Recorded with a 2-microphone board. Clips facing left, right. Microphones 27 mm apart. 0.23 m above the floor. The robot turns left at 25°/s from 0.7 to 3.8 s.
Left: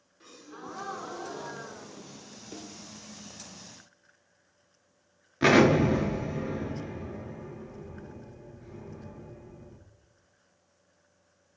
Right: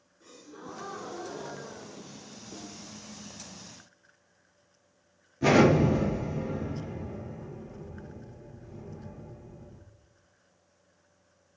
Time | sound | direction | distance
0.2 | a gasp | 115° left | 1.0 m
2.5 | a snare drum | 55° left (ahead or behind) | 0.6 m
5.4 | an explosion | 80° left | 0.8 m